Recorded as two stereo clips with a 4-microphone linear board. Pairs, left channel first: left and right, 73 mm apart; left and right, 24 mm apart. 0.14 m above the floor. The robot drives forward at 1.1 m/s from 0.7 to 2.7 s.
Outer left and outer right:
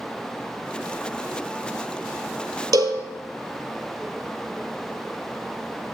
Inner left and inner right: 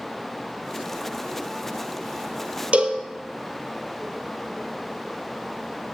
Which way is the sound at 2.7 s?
60° right (ahead or behind).